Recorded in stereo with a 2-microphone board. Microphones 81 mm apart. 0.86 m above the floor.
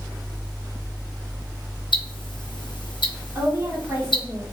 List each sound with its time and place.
1.9 s ticking: 80° left, 0.7 m
3.4 s a woman speaking: 40° right (ahead or behind), 1.5 m